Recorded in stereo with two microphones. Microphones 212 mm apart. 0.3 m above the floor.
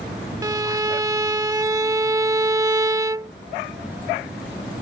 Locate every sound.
0.4 s a violin: 15° right (ahead or behind)